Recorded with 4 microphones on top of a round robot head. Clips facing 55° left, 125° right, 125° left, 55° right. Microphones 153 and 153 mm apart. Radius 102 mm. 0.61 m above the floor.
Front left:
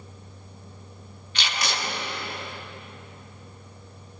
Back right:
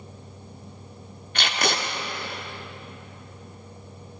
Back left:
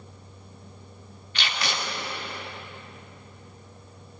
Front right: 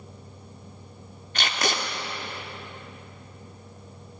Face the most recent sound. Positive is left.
turn(degrees=-95)